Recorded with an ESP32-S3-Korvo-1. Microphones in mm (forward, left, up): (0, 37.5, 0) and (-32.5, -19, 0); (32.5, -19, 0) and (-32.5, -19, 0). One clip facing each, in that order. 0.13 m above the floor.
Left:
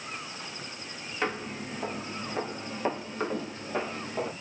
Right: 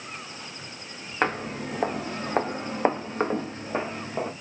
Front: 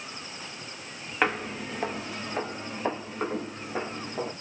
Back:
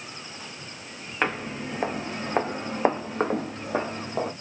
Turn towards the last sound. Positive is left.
turn(degrees=170)